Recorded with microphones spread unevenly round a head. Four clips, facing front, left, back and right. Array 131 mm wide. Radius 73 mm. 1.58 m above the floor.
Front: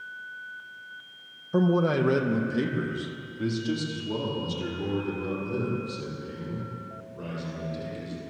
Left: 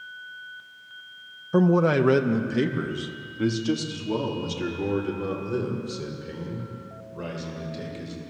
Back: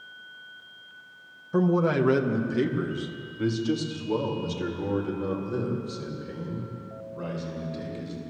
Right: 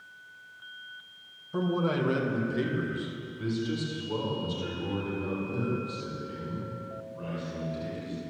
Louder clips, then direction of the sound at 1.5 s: Left 9 dB, even; 65° left.